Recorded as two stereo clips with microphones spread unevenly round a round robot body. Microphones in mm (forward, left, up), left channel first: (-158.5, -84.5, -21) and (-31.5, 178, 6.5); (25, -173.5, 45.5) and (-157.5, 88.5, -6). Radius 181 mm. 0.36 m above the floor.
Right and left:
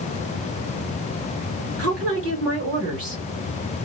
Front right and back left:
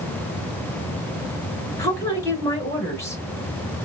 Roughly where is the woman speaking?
Ahead left.